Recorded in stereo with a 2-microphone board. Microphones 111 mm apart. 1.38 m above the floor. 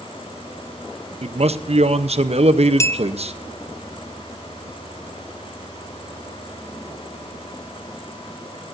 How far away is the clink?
About 0.7 m.